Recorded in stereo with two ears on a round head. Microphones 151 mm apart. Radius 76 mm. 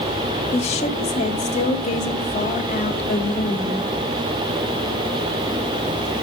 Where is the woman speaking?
40° left (ahead or behind), 2 m; by 3.9 s 50° left (ahead or behind), 4 m.